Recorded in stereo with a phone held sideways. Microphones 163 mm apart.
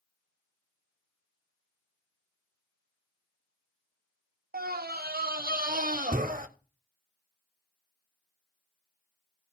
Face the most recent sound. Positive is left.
turn(degrees=-60)  # may be behind; listen again after turning